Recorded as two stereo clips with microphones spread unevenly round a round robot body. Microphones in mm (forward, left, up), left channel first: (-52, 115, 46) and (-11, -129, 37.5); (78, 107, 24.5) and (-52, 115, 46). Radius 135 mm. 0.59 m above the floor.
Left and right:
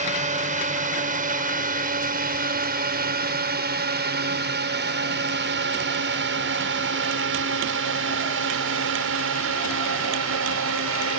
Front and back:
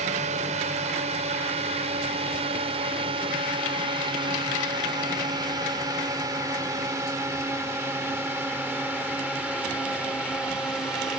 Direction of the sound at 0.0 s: 140° right.